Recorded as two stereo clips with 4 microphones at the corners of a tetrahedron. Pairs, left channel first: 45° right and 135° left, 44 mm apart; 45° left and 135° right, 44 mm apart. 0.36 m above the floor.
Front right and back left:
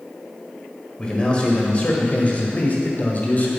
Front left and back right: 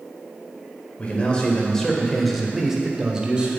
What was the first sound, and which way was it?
A man speaking, 10° left.